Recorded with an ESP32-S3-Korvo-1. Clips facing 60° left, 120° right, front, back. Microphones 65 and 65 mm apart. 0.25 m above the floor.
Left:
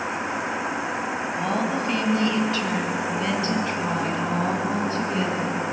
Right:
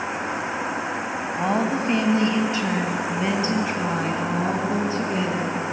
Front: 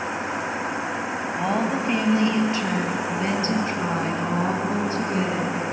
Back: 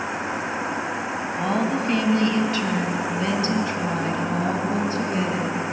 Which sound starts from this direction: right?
A woman speaking, at 1.4 s.